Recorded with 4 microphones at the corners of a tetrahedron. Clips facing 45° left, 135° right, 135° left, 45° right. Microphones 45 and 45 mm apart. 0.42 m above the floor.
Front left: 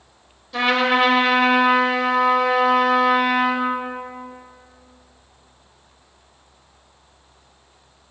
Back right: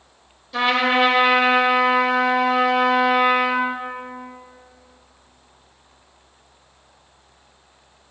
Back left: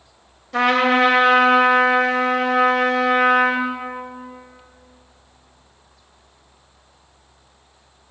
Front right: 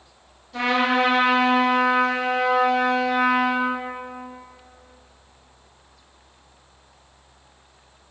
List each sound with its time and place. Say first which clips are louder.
0.5 s a trumpet: even, back left 4 dB; 135° left, 0.8 m